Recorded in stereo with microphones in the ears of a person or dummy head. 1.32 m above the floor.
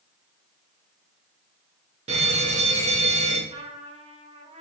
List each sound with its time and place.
2.1 s a fire alarm: 35° right (ahead or behind), 1.9 m
3.5 s a trumpet: 35° right (ahead or behind), 1.7 m